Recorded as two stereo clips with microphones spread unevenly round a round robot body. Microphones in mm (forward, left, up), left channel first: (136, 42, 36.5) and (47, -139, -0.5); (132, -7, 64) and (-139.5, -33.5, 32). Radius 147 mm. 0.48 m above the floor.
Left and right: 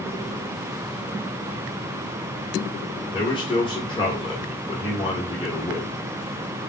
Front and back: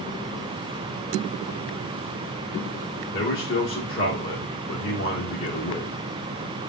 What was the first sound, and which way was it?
A man speaking, straight ahead.